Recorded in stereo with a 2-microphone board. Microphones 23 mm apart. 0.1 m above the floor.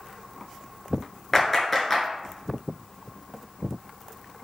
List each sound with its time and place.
1.3 s a clap: 15° left (ahead or behind), 1.4 m